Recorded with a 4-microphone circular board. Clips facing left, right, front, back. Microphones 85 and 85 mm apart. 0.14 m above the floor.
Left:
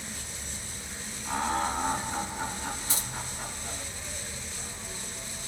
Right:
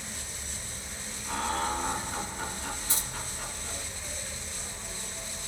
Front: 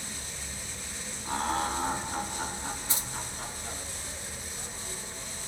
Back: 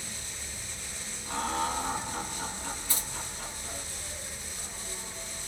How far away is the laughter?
About 1.8 m.